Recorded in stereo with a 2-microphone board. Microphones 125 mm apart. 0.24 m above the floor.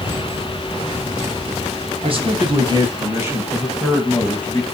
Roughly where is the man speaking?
Right.